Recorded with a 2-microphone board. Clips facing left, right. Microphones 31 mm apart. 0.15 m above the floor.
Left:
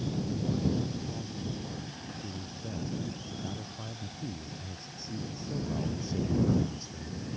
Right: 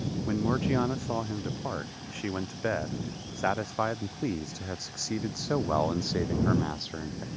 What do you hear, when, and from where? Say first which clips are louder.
0.3 s a man speaking: right 6 dB; 80° right; by 7.3 s 50° right (ahead or behind)